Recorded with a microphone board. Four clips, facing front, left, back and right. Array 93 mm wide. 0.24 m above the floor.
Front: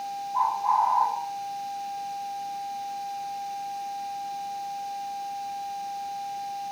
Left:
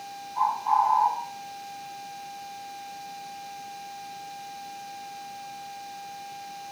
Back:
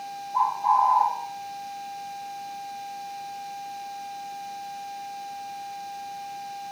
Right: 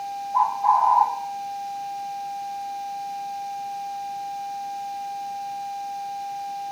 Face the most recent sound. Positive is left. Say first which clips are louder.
# right 4 dB, back 2 dB
turn(degrees=-95)